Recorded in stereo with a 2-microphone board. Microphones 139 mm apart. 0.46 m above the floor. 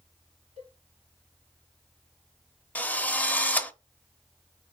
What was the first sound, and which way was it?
A cowbell, 55° right (ahead or behind).